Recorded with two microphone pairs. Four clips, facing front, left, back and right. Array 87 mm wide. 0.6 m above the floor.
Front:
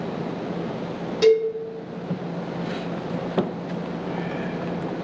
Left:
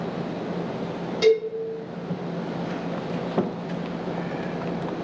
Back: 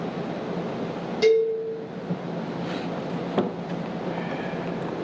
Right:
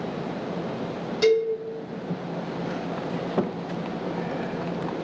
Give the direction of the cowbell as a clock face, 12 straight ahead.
11 o'clock.